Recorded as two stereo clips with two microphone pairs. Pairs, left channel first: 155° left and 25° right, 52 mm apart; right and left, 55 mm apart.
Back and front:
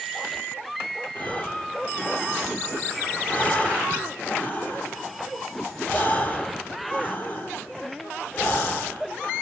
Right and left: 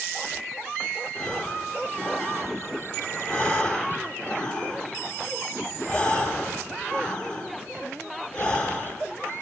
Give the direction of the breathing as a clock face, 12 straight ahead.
5 o'clock.